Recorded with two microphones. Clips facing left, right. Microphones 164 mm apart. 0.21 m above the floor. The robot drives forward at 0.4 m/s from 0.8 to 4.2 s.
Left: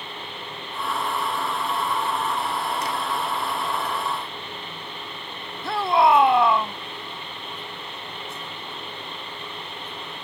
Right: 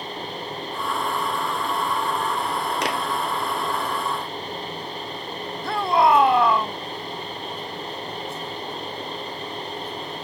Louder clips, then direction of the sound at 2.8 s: Right 3 dB; 70° right (ahead or behind).